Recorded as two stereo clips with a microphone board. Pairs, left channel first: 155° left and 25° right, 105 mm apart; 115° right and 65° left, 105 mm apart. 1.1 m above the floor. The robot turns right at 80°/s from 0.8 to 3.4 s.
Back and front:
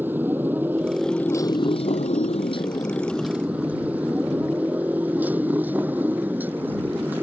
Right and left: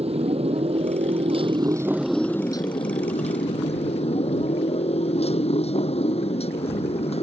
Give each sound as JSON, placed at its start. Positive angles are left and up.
{"t": 0.0, "sound": "a motorcycle", "azimuth_deg": 50}